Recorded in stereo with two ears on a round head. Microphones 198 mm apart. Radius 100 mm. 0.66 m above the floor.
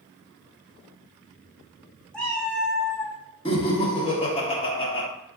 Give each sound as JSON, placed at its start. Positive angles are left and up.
{"t": 2.1, "sound": "a cat meowing", "side_deg": 5, "distance_m": 0.8}
{"t": 3.5, "sound": "laughter", "side_deg": 25, "distance_m": 0.9}